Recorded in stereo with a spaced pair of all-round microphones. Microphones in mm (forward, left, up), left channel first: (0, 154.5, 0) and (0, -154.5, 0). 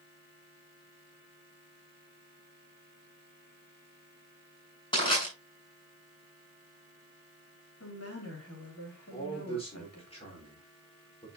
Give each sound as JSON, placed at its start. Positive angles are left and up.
{"t": 4.9, "sound": "crushing", "side_deg": 15, "distance_m": 5.5}
{"t": 7.8, "sound": "a woman speaking", "side_deg": 50, "distance_m": 3.5}
{"t": 9.1, "sound": "a man speaking", "side_deg": 20, "distance_m": 4.0}